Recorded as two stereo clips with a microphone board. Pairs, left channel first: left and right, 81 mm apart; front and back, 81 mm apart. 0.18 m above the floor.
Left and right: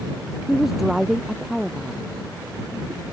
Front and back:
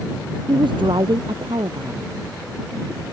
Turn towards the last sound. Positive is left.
turn(degrees=-175)